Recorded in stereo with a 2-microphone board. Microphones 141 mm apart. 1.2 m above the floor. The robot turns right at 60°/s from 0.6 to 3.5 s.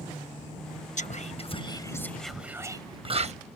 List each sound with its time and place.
1.0 s whispering: 60° left (ahead or behind); by 3.3 s 50° right (ahead or behind)